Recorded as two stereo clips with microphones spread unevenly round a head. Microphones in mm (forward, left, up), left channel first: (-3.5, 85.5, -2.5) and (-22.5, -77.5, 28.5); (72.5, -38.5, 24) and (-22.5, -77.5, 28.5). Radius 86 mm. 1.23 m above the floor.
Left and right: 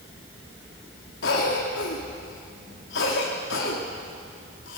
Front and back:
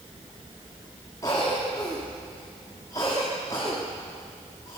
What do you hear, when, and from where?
1.2 s a cough: 90° left, 2.5 m